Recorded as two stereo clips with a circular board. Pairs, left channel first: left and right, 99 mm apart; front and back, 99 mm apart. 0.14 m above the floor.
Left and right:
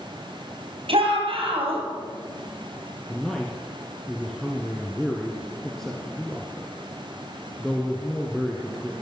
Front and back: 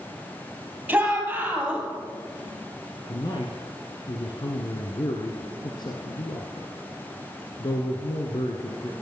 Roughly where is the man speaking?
Ahead.